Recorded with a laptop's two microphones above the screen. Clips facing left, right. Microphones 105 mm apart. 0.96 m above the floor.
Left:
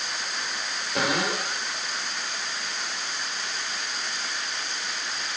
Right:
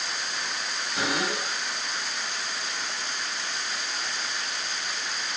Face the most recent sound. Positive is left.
turn(degrees=65)  # may be behind; listen again after turning